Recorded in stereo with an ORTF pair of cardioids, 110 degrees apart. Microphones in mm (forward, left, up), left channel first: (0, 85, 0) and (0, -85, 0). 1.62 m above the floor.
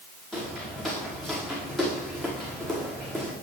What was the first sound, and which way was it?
Footsteps, 5° left.